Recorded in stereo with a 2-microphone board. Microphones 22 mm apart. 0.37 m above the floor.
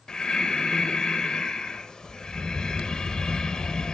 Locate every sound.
0.1 s breathing: 35° left (ahead or behind), 0.8 m